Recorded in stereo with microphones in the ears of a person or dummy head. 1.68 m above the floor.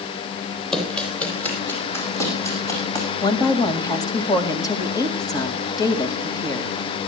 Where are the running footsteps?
5° left (ahead or behind), 3.5 m; by 3.0 s 20° left (ahead or behind), 6.5 m.